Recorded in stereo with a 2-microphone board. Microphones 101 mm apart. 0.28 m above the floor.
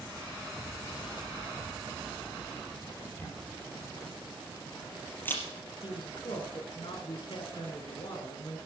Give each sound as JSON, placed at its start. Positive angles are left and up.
{"t": 3.2, "sound": "a camera shutter", "side_deg": 20, "distance_m": 4.0}
{"t": 5.8, "sound": "a man speaking", "side_deg": 55, "distance_m": 3.0}